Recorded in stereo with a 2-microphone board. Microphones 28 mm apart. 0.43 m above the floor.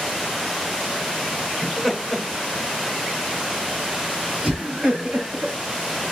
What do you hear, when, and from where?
1.6 s laughter: 15° left (ahead or behind), 1.3 m; by 5.5 s 40° right (ahead or behind), 3 m